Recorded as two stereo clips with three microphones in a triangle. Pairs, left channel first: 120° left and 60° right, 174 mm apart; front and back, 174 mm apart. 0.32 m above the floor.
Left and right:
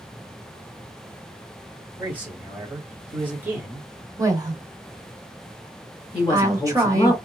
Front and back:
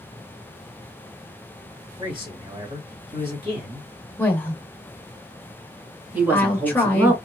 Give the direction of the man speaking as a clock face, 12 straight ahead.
4 o'clock.